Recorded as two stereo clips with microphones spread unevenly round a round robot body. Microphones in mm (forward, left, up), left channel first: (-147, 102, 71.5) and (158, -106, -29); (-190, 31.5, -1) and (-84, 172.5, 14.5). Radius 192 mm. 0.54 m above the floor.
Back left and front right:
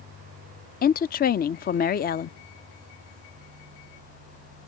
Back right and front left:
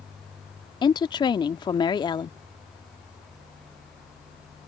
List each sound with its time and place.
0.8 s a woman speaking: 140° right